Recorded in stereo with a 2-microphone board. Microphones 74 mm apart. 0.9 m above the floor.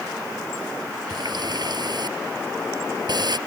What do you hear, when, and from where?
1.1 s a running tap: 65° right (ahead or behind)